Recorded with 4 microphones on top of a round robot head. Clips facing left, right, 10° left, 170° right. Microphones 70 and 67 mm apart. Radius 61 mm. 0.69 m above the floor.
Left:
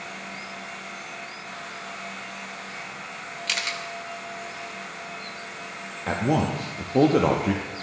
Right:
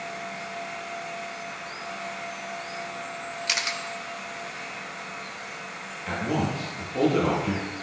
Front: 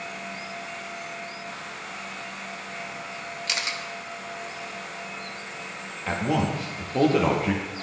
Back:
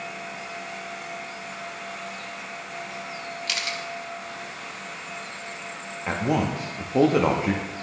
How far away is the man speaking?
About 0.6 m.